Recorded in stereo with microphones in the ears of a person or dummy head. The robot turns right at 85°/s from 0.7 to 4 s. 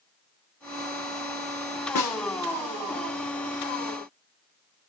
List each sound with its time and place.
1.9 s a snare drum: 50° left (ahead or behind), 0.9 m; by 2.2 s 25° left (ahead or behind), 0.9 m